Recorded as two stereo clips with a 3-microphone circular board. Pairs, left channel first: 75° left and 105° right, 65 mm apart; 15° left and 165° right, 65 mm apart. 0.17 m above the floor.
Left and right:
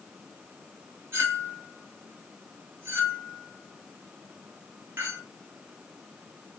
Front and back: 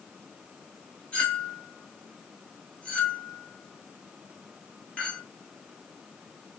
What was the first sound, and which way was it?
A clink, 55° right.